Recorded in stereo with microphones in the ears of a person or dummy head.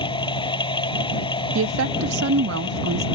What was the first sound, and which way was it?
A machine running, 25° left (ahead or behind).